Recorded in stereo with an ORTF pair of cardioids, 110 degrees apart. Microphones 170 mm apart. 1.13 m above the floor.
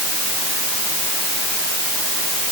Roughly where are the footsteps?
No footsteps in this recording.